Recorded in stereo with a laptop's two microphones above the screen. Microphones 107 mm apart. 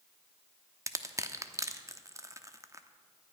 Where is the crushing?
30° right (ahead or behind), 0.9 m.